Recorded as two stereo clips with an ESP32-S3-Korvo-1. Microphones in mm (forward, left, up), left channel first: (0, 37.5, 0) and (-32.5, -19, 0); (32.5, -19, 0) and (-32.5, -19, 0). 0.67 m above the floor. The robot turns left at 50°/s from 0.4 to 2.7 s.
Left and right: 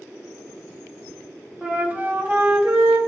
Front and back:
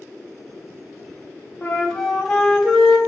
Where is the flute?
50° right, 1.1 m; by 3.0 s 105° right, 1.1 m.